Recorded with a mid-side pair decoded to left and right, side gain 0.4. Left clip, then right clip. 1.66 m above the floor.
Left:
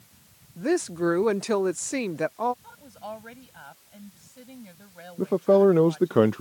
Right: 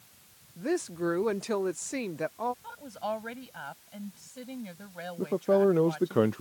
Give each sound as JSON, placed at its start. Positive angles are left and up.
{"t": 0.6, "sound": "a woman speaking", "azimuth_deg": 40}
{"t": 2.6, "sound": "a woman speaking", "azimuth_deg": -40}
{"t": 5.2, "sound": "a man speaking", "azimuth_deg": 40}